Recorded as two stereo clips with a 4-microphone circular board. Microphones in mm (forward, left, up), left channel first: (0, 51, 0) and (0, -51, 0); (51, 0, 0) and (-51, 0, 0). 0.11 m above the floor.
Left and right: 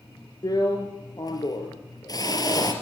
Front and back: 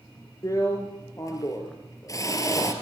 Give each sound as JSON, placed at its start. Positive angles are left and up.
{"t": 0.4, "sound": "a drill", "azimuth_deg": 50, "distance_m": 3.0}